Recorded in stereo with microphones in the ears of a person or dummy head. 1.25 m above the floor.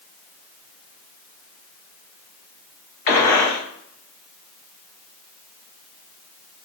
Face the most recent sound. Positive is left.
turn(degrees=45)  # may be behind; listen again after turning